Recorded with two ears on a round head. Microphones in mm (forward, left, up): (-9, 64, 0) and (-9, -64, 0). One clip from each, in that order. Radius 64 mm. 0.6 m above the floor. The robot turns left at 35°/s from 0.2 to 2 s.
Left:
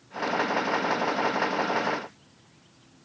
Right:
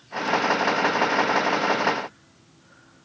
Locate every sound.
Only background noise.